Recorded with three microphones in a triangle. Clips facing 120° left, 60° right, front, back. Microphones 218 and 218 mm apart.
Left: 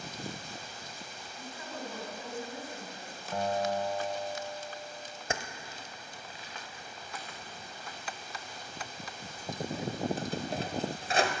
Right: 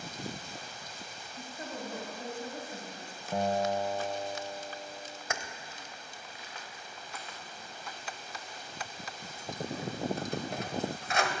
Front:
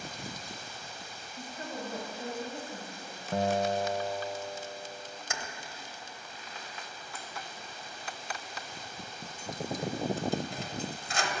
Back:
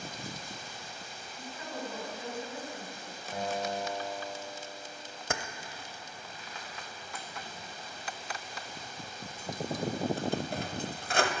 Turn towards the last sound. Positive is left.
turn(degrees=175)